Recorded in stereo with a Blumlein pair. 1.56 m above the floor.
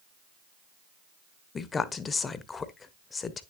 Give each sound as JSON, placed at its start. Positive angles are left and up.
{"t": 1.6, "sound": "a woman speaking", "azimuth_deg": 15, "distance_m": 0.9}